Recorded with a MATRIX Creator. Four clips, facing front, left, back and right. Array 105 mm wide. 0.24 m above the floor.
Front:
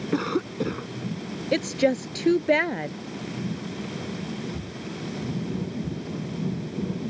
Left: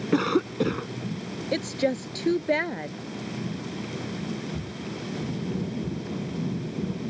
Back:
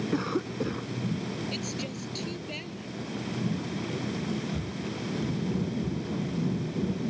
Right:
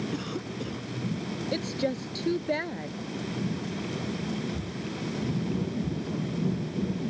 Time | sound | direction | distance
0.1 | a cough | 75° left | ?
1.5 | a woman speaking | 15° left | ?